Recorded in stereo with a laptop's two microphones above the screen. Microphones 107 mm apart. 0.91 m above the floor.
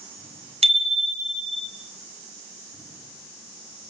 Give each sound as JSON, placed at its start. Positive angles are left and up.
{"t": 0.6, "sound": "a bicycle bell", "side_deg": -70, "distance_m": 3.5}